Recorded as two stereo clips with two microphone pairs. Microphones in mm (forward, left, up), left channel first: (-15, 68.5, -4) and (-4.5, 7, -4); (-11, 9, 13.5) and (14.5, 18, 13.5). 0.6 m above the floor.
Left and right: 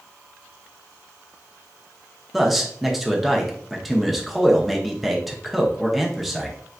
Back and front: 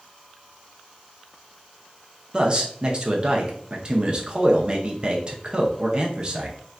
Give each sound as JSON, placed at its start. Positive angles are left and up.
{"t": 2.3, "sound": "a man speaking", "azimuth_deg": 15, "distance_m": 0.7}